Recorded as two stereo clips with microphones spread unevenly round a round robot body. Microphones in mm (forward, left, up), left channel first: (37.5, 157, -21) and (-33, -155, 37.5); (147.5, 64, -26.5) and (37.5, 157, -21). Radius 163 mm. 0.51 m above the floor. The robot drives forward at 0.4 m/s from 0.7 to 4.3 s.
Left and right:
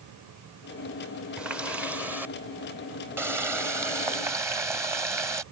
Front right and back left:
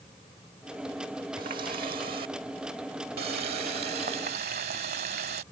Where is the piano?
No piano in this recording.